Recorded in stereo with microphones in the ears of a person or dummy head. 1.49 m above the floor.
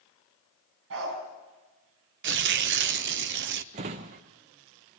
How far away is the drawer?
About 0.7 m.